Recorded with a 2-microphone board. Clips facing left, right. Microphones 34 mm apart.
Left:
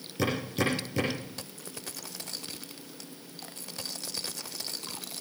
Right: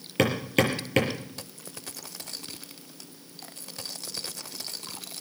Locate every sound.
0.2 s hammering: 85° right, 5 m